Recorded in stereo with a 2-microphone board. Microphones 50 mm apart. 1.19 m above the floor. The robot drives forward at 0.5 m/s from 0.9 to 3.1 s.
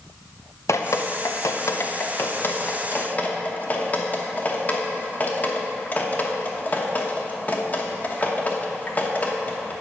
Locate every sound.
0.7 s dripping: 75° left (ahead or behind), 0.6 m; by 9.7 s 30° left (ahead or behind), 1.1 m